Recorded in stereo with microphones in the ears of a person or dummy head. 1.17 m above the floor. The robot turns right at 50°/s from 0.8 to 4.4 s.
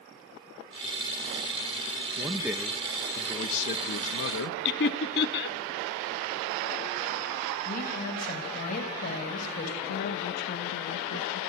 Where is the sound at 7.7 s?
45° left (ahead or behind), 5.5 m.